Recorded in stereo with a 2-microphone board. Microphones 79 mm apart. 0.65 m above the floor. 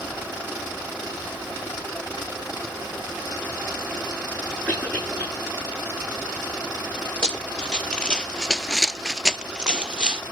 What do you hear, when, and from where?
4.7 s a cough: 15° left (ahead or behind), 9 m
7.2 s running footsteps: 15° left (ahead or behind), 1.3 m; by 10.2 s 15° right (ahead or behind), 1.2 m